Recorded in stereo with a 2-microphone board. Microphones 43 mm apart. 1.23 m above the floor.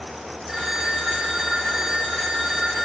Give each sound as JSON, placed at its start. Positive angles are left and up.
{"t": 0.5, "sound": "a phone ringing", "side_deg": -5, "distance_m": 2.5}